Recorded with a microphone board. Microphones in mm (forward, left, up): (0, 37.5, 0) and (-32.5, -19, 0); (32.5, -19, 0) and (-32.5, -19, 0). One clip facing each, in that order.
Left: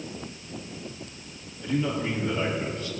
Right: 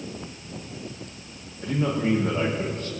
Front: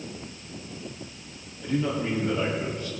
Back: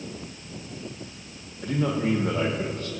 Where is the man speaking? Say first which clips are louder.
Right 3 dB, back 2 dB; 160° right, 5.5 m.